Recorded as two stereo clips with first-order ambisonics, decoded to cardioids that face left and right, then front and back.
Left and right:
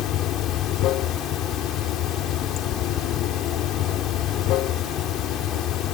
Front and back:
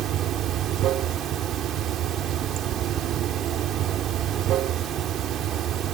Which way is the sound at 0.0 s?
130° left.